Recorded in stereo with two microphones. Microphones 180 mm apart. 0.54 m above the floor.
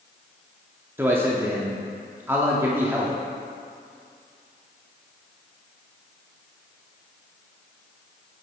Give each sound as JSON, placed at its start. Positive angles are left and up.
{"t": 1.0, "sound": "a man speaking", "side_deg": -10, "distance_m": 0.6}